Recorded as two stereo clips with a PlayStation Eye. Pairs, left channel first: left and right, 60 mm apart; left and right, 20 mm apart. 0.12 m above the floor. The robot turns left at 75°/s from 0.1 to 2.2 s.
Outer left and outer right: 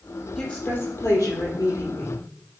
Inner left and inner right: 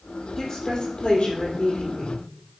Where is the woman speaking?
165° left, 3.5 m; by 2.2 s 25° left, 3.5 m.